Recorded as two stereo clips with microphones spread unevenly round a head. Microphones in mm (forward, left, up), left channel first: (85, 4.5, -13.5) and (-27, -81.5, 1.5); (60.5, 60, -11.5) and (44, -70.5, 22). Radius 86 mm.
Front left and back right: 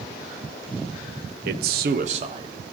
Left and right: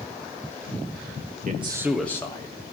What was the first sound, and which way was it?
A man speaking, 140° right.